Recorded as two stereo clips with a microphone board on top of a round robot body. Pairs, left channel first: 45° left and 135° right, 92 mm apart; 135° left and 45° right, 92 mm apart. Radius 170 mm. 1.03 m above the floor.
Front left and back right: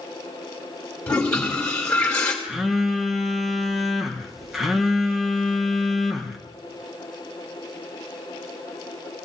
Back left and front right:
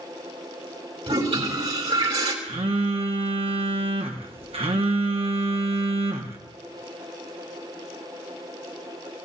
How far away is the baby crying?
I don't hear a baby crying.